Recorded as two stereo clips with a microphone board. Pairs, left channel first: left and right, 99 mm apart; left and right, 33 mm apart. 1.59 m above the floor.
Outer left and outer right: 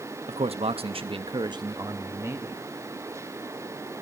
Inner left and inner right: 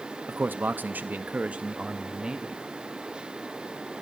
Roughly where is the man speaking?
Right.